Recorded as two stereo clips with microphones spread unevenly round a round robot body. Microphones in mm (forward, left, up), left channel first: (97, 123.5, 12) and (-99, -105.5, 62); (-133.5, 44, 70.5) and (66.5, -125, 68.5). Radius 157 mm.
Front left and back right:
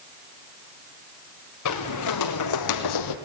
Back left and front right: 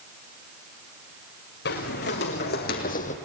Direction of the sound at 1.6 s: 85° left.